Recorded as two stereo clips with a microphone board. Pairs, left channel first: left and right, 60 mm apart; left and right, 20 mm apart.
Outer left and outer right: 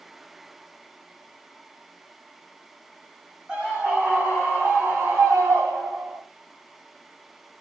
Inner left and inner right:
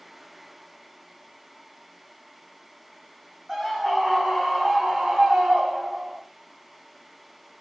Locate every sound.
3.5 s a scream: 20° right (ahead or behind), 2 m; by 6.2 s 60° right (ahead or behind), 2.5 m